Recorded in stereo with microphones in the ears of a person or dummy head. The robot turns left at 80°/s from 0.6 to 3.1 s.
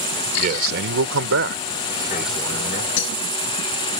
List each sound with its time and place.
0.4 s a man speaking: 50° right; by 2.9 s 125° left
3.0 s breaking glass: 85° left; by 3.2 s 80° left